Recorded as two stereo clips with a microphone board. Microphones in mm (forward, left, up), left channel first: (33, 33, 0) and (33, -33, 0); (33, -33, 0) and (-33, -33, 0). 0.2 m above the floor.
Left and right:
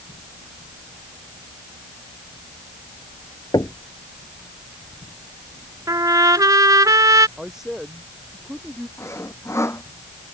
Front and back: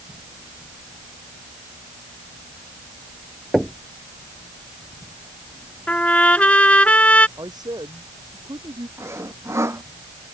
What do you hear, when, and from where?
3.5 s knocking: 95° left
5.9 s a trumpet: 70° right
7.4 s a man speaking: 170° right
9.0 s sawing: 135° left